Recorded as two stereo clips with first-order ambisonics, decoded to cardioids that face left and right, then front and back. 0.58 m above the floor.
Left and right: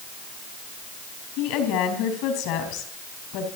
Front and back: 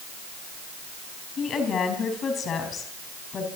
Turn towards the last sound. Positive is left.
turn(degrees=65)